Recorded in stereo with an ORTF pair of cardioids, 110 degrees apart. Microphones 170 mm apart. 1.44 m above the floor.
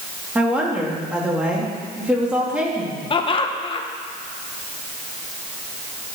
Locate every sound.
0.3 s a woman speaking: 5° right, 3 m
3.1 s laughter: 30° left, 1.5 m